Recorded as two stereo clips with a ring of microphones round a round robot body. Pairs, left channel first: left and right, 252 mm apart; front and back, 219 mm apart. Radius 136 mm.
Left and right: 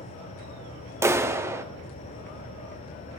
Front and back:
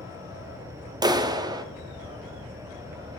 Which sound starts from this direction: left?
An insect, at 0.0 s.